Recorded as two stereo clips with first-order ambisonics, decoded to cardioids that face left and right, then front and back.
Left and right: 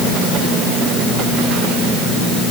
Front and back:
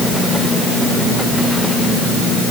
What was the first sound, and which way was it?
Only background noise.